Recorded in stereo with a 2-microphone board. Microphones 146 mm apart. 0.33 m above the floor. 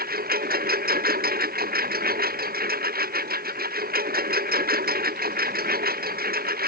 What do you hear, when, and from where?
0.0 s a lawn mower: 85° right